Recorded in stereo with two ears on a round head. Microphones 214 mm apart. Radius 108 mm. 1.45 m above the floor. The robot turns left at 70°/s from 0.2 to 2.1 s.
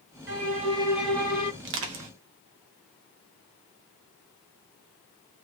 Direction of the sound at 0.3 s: 125° right.